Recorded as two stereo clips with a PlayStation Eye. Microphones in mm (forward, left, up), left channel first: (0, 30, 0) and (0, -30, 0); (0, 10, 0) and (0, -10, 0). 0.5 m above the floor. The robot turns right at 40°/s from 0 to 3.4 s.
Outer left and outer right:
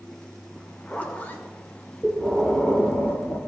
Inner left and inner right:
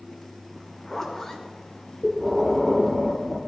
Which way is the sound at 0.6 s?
10° left.